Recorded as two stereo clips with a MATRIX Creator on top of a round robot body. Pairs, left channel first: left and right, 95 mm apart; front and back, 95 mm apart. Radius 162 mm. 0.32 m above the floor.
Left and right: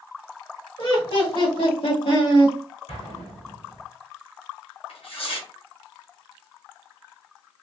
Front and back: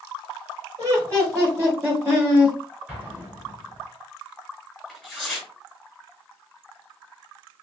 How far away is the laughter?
About 2.5 m.